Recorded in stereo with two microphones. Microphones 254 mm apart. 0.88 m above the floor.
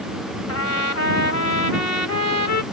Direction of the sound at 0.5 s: 85° left.